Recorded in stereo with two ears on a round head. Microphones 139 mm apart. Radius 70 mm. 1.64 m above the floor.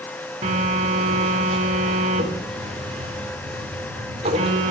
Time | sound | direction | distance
0.4 | a phone buzzing | 40° right (ahead or behind) | 3.5 m